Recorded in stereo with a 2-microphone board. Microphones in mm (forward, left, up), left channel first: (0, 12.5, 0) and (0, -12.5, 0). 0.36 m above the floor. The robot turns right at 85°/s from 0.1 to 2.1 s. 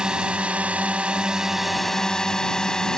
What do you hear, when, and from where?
0.0 s a drone: 140° right; by 3.0 s 30° left